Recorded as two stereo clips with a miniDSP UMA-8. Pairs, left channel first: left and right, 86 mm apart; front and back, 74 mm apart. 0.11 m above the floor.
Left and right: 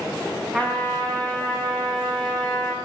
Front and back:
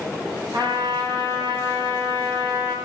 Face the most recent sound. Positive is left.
turn(degrees=170)